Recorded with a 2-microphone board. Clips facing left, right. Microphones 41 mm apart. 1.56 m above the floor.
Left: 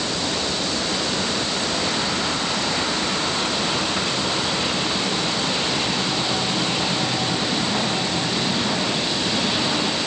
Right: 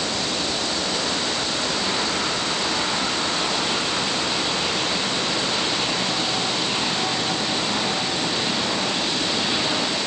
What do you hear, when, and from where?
Only background noise.